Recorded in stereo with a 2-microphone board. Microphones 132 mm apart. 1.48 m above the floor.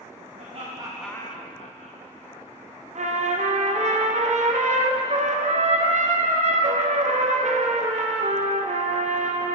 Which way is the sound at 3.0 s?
60° right (ahead or behind).